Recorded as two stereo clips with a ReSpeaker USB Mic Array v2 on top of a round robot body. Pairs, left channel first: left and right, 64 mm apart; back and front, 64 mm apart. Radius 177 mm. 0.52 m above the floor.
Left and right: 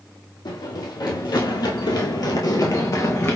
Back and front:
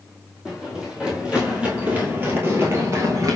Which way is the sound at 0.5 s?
75° left.